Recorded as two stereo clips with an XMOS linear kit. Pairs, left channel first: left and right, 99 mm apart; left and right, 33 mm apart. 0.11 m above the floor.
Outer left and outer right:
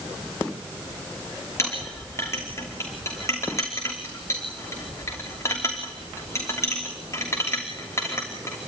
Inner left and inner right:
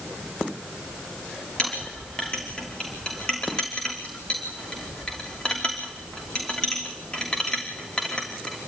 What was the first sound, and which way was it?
A clink, 30° left (ahead or behind).